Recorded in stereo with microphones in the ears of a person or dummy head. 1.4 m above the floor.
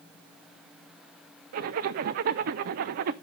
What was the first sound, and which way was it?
A zipper, 55° right (ahead or behind).